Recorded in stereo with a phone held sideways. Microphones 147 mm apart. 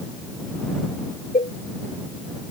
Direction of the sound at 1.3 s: 60° left (ahead or behind).